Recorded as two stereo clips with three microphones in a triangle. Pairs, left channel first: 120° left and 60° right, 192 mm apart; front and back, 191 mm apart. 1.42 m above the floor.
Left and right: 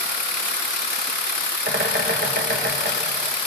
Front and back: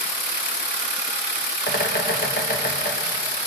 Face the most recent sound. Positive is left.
turn(degrees=-30)